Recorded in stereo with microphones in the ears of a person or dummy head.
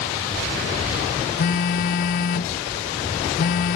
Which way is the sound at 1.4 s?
55° left (ahead or behind).